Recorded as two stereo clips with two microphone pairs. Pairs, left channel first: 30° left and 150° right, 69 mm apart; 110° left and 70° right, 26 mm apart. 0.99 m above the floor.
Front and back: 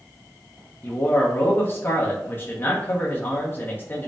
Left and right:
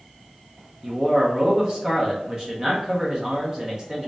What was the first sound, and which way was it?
A man speaking, 15° right.